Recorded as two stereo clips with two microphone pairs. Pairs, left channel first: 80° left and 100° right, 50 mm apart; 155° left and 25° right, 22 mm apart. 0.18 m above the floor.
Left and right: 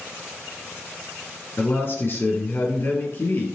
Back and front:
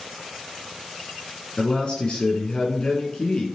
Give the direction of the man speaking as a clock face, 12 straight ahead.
8 o'clock.